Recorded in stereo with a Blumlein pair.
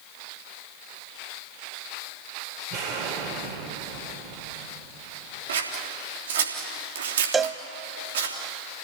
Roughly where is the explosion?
Ahead right.